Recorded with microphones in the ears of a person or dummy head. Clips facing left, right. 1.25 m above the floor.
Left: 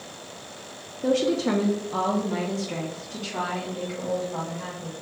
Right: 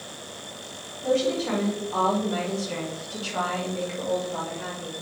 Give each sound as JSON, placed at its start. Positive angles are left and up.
{"t": 1.0, "sound": "a woman speaking", "side_deg": 85, "distance_m": 0.7}